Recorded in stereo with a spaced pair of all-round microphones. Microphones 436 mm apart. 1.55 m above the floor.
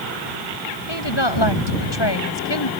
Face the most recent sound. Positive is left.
turn(degrees=65)  # may be behind; listen again after turning